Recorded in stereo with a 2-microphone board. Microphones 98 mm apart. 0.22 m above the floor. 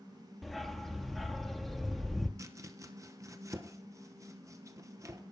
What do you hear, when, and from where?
0.4 s a dog barking: centre (ahead or behind), 1.6 m
2.4 s chopping: 30° right (ahead or behind), 1.4 m